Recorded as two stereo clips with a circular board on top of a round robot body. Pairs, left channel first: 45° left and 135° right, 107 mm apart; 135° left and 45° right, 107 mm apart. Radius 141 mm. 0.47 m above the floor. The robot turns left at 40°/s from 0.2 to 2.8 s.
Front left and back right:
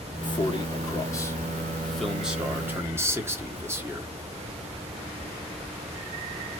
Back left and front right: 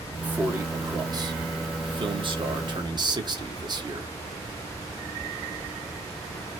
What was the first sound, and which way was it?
A man speaking, 30° left.